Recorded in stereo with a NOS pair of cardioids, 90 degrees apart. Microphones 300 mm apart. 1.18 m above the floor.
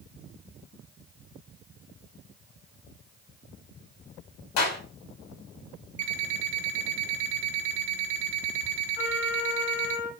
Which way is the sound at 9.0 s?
60° left.